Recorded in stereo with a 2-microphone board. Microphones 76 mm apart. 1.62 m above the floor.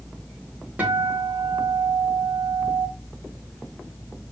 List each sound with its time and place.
0.8 s a guitar: 20° right (ahead or behind), 1.4 m